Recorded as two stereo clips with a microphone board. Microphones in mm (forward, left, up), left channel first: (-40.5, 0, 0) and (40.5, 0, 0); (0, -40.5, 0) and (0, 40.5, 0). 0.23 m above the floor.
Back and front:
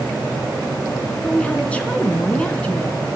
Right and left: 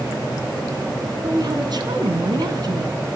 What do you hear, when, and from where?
1.2 s a woman speaking: 110° left, 2.5 m